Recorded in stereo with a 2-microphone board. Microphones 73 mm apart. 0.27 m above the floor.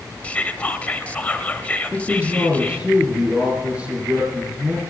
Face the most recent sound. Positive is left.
turn(degrees=-15)  # may be behind; listen again after turning